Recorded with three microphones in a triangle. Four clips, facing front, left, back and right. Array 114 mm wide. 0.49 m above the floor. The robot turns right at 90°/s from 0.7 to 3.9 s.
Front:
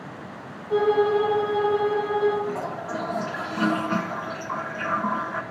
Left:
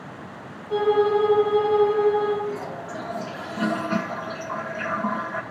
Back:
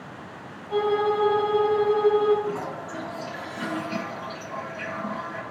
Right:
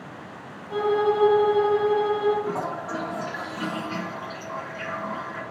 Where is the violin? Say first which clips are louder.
Left 3 dB, front 3 dB; 30° left, 6.5 m; by 2.4 s straight behind, 6.5 m.